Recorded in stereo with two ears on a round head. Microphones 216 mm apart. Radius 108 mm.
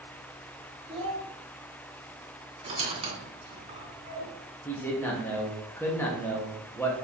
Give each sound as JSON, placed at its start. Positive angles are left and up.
{"t": 0.9, "sound": "a child speaking", "side_deg": -20, "distance_m": 1.8}
{"t": 2.6, "sound": "a squeak", "side_deg": -25, "distance_m": 2.5}
{"t": 4.7, "sound": "a man speaking", "side_deg": 10, "distance_m": 1.0}